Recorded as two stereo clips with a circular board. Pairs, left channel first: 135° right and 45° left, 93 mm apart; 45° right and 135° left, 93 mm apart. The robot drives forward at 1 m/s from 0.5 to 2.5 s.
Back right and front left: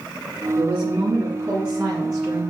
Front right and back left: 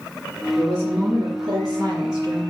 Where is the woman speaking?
80° left, 2.5 m; by 2.5 s 130° left, 3 m.